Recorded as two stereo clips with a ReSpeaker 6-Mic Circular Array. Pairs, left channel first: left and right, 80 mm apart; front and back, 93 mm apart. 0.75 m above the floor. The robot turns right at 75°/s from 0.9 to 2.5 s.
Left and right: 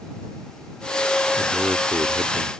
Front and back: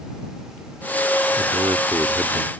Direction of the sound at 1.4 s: 170° right.